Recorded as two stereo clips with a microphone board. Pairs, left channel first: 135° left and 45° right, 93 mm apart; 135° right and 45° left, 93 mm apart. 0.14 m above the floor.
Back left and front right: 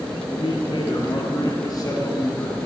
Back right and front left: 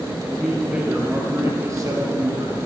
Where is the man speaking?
135° left, 3 m; by 2.6 s 75° left, 3 m.